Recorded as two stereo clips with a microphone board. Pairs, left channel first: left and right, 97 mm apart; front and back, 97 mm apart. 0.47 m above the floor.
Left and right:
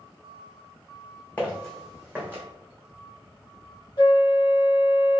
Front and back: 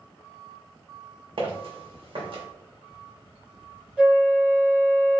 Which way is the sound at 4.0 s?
100° left.